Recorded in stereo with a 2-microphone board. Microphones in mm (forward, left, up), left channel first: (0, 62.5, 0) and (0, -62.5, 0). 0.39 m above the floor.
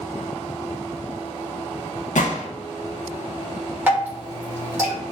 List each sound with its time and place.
2.1 s a gunshot: 85° left, 0.6 m
3.9 s dripping: 15° right (ahead or behind), 1.3 m